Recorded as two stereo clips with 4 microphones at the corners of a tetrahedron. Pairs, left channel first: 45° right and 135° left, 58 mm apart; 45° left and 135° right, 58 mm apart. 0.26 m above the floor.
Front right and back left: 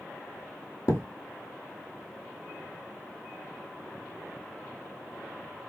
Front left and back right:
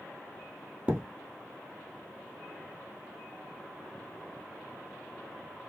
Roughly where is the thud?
Right.